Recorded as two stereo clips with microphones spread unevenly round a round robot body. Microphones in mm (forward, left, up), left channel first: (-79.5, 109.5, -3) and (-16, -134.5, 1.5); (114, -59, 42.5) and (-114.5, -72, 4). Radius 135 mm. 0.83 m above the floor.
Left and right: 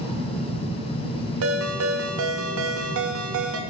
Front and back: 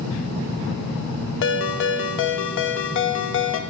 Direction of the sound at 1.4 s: 35° right.